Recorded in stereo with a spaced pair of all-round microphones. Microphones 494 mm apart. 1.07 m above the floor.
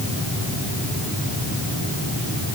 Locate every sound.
Only background noise.